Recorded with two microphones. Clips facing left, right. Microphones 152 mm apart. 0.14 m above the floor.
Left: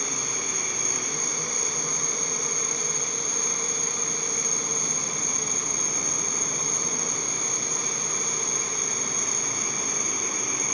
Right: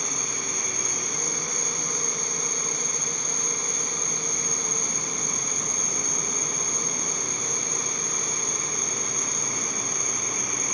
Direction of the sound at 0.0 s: 10° left (ahead or behind).